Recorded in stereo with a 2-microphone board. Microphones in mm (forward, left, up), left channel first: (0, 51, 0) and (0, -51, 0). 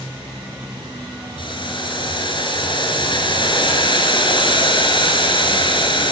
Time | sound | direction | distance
1.4 | boiling | 50° left (ahead or behind) | 6 m